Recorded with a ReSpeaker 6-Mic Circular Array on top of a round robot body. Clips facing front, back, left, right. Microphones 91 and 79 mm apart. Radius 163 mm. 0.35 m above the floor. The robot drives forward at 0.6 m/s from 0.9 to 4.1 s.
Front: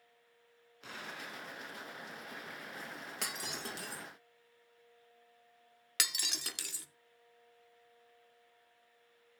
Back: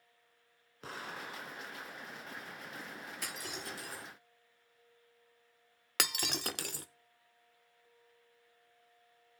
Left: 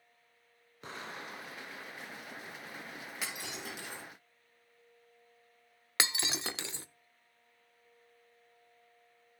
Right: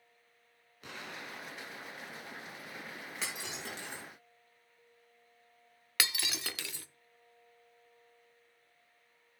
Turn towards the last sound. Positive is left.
turn(degrees=150)